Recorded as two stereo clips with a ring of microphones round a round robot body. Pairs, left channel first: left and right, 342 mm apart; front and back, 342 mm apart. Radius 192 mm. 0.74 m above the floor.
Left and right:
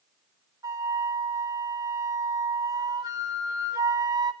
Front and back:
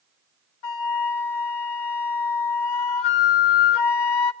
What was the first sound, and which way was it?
A flute, 10° right.